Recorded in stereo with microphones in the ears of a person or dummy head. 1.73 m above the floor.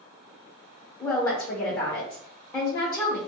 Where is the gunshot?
I don't hear a gunshot.